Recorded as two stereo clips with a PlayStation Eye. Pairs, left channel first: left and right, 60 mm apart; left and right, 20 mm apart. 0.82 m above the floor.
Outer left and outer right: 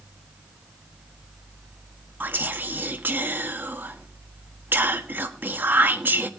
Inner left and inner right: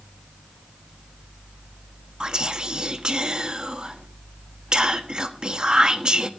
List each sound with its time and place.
2.2 s whispering: 35° right (ahead or behind), 1.5 m